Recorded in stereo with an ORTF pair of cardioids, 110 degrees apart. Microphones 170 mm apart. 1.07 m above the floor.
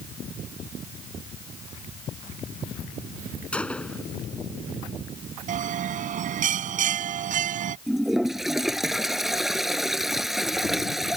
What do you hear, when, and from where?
3.5 s a gunshot: 5° left
5.5 s a bell: 55° right
7.9 s a toilet flushing: straight ahead